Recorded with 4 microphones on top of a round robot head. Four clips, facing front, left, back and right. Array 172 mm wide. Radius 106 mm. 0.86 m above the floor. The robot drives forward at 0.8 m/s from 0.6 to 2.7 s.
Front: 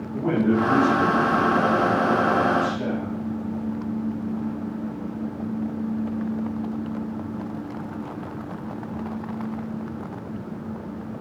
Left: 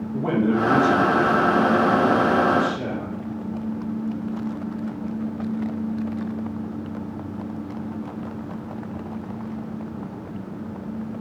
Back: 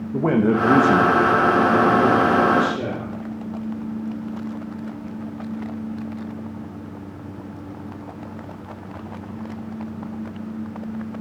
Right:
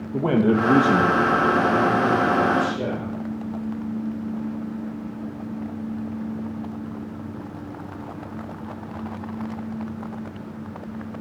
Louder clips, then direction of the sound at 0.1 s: Right 2 dB, back 3 dB; 150° right.